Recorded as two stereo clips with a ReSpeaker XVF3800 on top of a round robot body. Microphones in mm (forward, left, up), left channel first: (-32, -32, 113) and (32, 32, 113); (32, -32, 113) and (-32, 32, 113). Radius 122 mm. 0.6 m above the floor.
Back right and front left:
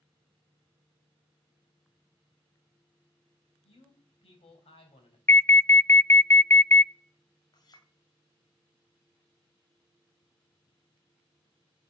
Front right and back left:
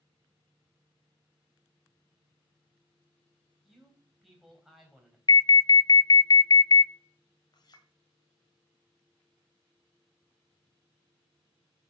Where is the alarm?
75° right, 0.6 m.